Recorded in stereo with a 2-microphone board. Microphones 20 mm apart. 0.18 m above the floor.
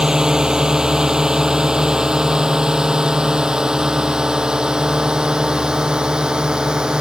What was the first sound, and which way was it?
A drone, 30° right (ahead or behind).